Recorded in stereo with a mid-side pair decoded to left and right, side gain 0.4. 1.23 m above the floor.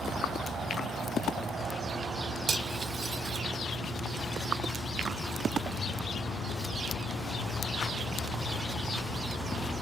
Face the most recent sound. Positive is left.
turn(degrees=-60)